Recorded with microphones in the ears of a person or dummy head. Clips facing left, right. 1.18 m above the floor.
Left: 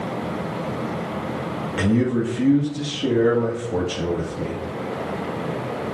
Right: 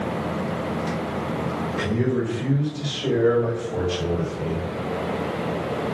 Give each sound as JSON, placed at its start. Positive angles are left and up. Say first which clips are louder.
{"t": 1.8, "sound": "a man speaking", "louder": "left 4 dB", "side_deg": 75, "distance_m": 1.8}